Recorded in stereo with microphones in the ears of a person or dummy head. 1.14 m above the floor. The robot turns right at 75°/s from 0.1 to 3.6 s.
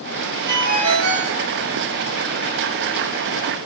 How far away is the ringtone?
About 2 m.